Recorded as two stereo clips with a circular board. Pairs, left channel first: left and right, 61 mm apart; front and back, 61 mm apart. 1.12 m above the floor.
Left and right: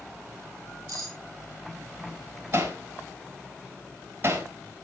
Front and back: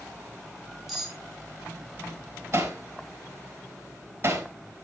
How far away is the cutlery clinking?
About 6.5 m.